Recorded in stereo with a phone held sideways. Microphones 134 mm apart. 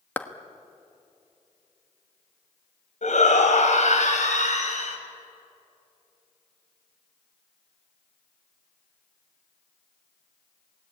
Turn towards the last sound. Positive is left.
turn(degrees=65)  # may be behind; listen again after turning